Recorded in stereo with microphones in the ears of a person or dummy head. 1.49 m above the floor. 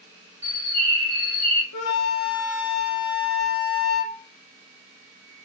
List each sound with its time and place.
0.4 s a bird: 30° right (ahead or behind), 0.6 m
1.7 s a flute: 85° left, 0.6 m